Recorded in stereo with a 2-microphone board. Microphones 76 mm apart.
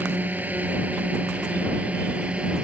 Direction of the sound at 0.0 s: 20° right (ahead or behind).